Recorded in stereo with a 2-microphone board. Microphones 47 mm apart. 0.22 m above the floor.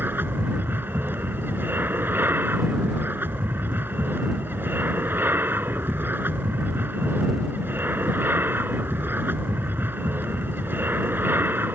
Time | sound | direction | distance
0.0 | an aircraft | 45° right (ahead or behind) | ?